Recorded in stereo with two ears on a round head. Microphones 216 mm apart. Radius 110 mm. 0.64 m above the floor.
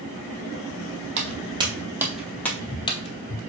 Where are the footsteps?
25° right (ahead or behind), 1.2 m; by 3.4 s 35° left (ahead or behind), 1.0 m.